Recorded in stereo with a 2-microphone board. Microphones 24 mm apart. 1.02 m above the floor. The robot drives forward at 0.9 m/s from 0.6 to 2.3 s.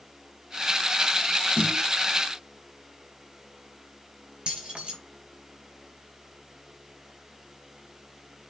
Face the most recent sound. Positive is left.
turn(degrees=-45)  # may be behind; listen again after turning